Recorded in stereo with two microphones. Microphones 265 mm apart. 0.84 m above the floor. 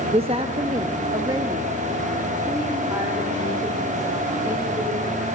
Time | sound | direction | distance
0.1 | a woman speaking | 20° right (ahead or behind) | 0.6 m